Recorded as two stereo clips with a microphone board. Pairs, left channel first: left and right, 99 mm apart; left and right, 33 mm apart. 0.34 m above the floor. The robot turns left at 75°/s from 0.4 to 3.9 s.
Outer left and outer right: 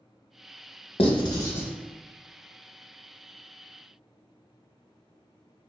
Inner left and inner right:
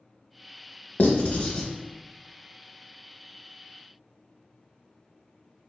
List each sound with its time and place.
1.0 s writing: 65° left (ahead or behind), 0.5 m; by 1.7 s 20° left (ahead or behind), 0.5 m